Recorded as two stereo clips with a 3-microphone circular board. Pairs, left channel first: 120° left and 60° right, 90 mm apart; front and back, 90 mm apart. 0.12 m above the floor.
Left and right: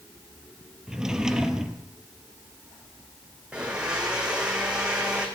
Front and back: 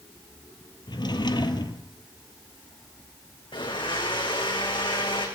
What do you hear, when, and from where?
0.9 s a drawer: 20° left, 1.1 m
3.5 s a blender: 20° left, 3.5 m